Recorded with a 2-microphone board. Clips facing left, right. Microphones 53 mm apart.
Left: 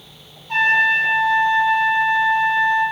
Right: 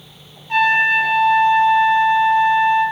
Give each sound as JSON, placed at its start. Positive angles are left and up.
{"t": 0.5, "sound": "a trumpet", "side_deg": -15, "distance_m": 1.8}